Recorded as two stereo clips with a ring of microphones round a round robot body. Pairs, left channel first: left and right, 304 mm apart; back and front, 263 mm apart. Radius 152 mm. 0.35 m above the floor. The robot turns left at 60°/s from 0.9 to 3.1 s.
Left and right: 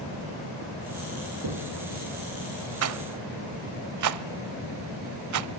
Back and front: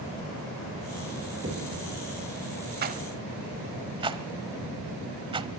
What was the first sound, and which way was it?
Knocking, 65° right.